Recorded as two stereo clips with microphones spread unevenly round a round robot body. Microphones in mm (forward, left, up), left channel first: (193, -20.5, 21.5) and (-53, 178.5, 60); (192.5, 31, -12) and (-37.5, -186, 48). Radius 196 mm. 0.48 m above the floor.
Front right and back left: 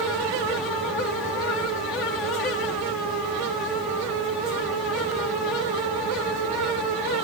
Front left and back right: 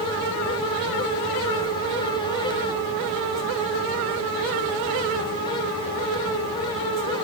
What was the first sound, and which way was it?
Only background noise.